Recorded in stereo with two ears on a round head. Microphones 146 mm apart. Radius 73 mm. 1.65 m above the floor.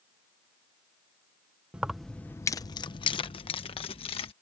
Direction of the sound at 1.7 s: 5° right (ahead or behind).